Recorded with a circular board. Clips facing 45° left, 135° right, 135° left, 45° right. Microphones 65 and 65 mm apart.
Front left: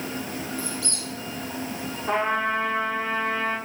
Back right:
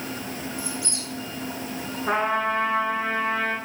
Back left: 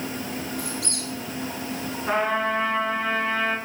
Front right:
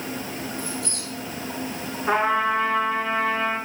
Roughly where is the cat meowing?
No cat meowing in this recording.